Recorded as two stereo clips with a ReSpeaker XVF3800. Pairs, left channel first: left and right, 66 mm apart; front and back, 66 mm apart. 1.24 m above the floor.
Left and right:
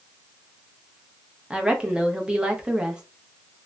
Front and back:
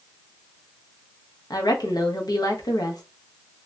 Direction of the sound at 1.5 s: 15° right.